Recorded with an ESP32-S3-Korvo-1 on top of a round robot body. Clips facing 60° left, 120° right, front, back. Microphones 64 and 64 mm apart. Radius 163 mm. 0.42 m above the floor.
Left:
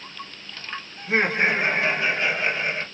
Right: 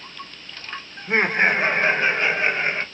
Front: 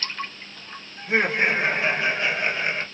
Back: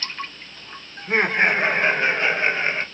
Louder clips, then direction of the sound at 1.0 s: Right 2 dB, back 2 dB; 150° right.